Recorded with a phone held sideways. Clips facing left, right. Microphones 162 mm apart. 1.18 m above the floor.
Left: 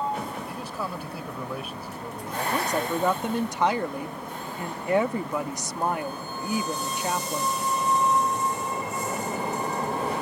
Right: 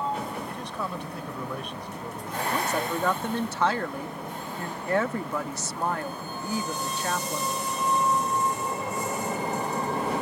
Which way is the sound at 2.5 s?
15° left (ahead or behind).